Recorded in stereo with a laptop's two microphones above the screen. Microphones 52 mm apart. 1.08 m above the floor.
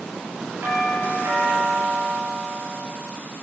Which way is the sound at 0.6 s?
60° right (ahead or behind).